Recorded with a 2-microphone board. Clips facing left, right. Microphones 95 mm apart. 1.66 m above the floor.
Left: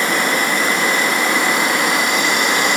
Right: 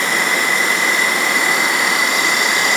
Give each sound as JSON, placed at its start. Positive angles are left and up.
{"t": 0.0, "sound": "an insect", "side_deg": 45, "distance_m": 4.0}